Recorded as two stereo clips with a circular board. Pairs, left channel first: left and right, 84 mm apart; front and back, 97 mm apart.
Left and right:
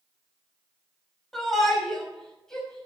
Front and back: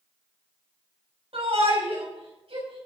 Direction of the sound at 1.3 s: Straight behind.